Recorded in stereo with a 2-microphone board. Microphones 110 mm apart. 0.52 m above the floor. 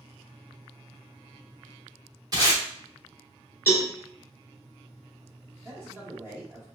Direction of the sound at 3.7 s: 20° left (ahead or behind).